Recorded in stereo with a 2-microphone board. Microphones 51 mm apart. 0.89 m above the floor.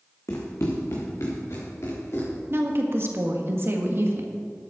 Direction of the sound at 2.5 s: 45° right (ahead or behind).